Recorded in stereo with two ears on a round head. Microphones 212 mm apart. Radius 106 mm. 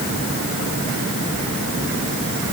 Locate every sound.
Only background noise.